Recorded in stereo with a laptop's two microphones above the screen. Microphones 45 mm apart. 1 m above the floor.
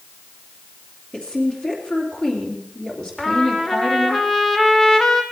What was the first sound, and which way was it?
A woman speaking, 20° left (ahead or behind).